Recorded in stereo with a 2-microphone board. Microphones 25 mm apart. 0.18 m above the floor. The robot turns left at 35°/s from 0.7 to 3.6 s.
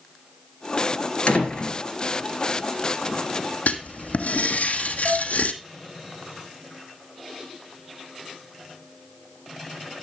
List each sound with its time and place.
1.3 s a door slam: 50° left (ahead or behind), 2.5 m; by 1.8 s 35° left (ahead or behind), 2.5 m
3.7 s writing: 80° left, 1.1 m
5.0 s dishes clattering: 40° right (ahead or behind), 2.5 m